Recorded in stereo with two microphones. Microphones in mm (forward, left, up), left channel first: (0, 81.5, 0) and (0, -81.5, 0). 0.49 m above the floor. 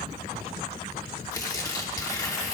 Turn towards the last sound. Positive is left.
turn(degrees=20)  # may be behind; listen again after turning